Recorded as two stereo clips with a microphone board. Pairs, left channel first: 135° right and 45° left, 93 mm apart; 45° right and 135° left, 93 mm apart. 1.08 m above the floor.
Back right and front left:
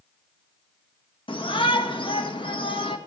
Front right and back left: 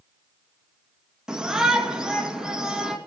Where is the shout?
145° right, 1.8 m.